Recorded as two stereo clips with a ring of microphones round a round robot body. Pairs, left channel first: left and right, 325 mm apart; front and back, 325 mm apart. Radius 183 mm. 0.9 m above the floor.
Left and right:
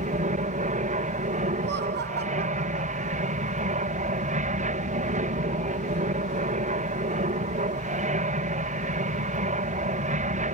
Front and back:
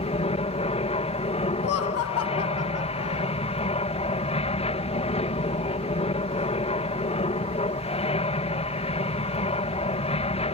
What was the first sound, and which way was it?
An aircraft, 50° right.